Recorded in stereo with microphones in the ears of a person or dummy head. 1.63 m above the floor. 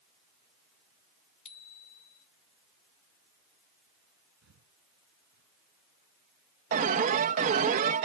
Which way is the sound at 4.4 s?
70° right (ahead or behind).